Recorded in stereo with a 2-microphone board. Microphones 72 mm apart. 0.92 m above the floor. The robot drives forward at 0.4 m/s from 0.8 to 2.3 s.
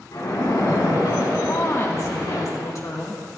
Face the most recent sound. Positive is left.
turn(degrees=45)  # may be behind; listen again after turning